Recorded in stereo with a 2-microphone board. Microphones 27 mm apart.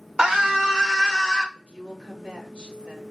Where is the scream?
45° right (ahead or behind), 1.2 m; by 1.4 s 10° right (ahead or behind), 1.4 m.